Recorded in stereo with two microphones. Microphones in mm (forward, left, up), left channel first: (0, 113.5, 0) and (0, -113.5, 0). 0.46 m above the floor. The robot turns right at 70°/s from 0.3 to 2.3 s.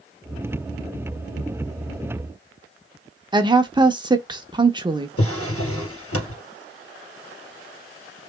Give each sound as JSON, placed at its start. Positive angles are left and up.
{"t": 3.3, "sound": "a woman speaking", "side_deg": -20, "distance_m": 0.8}
{"t": 5.2, "sound": "a drawer", "side_deg": 85, "distance_m": 2.5}